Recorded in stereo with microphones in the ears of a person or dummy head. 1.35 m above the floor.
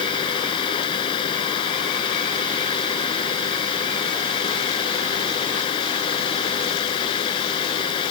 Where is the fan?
30° left (ahead or behind).